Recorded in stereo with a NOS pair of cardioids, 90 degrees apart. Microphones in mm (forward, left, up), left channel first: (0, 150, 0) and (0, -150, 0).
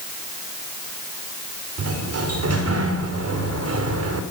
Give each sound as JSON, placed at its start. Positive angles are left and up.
{"t": 1.8, "sound": "a sliding door", "azimuth_deg": -55, "distance_m": 5.0}